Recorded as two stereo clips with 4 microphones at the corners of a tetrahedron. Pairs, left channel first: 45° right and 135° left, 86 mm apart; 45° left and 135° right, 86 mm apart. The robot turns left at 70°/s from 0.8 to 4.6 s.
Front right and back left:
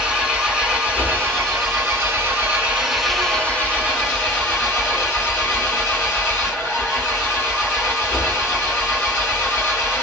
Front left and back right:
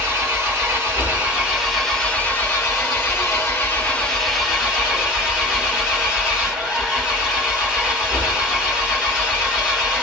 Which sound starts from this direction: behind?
An engine running, at 0.0 s.